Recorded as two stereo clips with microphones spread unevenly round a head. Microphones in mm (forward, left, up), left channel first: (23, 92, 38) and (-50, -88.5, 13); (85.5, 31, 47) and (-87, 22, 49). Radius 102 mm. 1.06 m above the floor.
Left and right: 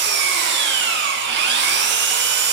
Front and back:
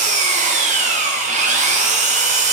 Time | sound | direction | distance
0.0 | an engine running | 130° right | 0.8 m